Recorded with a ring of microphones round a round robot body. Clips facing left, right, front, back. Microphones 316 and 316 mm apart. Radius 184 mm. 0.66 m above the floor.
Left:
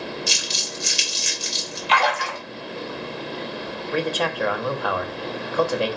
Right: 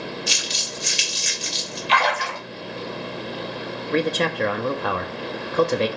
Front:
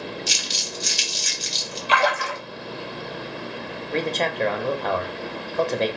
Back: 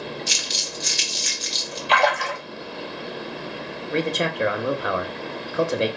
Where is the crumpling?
50° left, 1.4 m.